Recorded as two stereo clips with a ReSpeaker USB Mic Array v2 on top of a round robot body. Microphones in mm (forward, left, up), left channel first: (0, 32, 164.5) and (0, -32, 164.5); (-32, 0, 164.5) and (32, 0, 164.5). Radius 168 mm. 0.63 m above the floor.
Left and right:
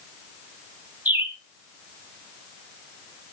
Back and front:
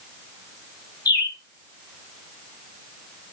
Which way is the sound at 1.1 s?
160° right.